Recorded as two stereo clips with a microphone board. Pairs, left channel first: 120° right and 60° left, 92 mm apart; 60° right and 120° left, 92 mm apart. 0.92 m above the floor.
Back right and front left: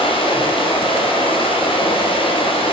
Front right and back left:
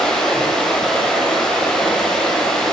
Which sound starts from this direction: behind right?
Running water, at 0.0 s.